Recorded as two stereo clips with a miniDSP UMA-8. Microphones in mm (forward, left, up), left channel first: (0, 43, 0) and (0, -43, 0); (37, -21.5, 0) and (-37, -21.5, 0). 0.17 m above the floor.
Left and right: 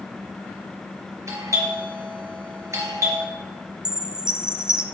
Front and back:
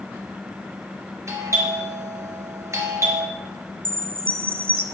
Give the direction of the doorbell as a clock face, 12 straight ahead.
5 o'clock.